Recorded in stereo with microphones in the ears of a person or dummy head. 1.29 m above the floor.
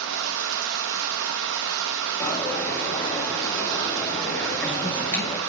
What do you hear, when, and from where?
0.0 s running water: 70° right (ahead or behind), 0.7 m
2.2 s a dropped coin: 15° left (ahead or behind), 3 m